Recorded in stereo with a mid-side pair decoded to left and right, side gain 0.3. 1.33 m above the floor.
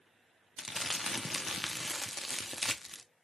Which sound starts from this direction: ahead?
Crumpling, at 0.6 s.